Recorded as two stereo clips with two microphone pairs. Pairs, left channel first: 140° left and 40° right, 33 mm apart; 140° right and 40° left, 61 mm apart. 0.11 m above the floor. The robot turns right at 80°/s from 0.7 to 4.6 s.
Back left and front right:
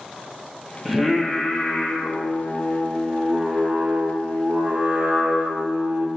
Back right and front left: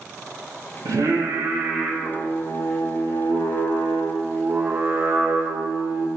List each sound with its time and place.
0.8 s singing: 50° left, 0.6 m; by 6.1 s 10° right, 0.6 m